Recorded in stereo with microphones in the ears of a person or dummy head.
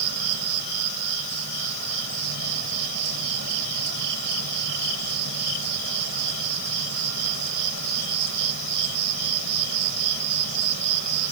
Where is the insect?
60° right (ahead or behind).